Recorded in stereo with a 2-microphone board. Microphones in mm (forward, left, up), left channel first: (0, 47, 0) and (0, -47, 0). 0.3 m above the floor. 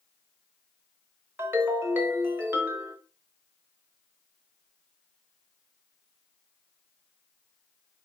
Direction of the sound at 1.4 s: 25° right (ahead or behind).